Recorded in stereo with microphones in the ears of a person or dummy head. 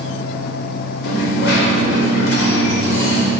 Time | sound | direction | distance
1.0 | a dropped coin | 75° left (ahead or behind) | 2 m